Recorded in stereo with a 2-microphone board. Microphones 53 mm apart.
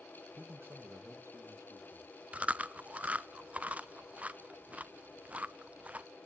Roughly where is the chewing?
Right.